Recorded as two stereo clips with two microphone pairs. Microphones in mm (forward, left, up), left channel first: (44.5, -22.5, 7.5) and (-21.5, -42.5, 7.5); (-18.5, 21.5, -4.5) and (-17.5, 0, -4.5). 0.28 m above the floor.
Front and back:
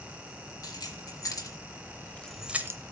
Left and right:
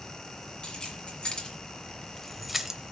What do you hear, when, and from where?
0.6 s keys jangling: 45° left, 2.5 m; by 2.9 s 150° right, 1.0 m